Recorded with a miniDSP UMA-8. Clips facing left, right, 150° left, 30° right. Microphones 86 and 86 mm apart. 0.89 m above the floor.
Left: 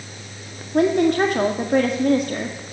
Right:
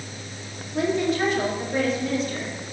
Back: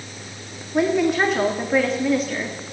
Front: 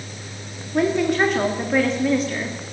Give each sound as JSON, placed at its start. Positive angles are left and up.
{"t": 0.7, "sound": "a woman speaking", "azimuth_deg": 60, "distance_m": 1.7}